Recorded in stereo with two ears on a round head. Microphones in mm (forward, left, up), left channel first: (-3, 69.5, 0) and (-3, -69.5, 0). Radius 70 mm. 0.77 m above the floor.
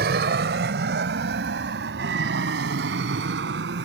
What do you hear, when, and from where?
0.0 s an aircraft: 70° right (ahead or behind); by 3.9 s 80° right